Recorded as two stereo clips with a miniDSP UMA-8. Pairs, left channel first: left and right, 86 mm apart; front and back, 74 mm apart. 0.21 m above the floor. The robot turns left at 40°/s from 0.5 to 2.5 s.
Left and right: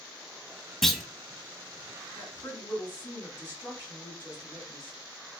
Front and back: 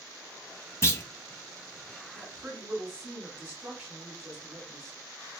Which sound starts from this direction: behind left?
A woman speaking, at 2.1 s.